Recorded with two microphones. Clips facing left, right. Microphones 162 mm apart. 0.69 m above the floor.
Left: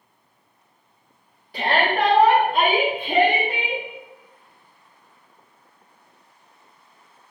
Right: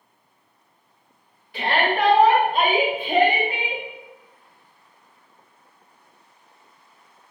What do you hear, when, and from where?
1.5 s a shout: 40° left (ahead or behind), 1.3 m; by 3.8 s 65° left (ahead or behind), 3 m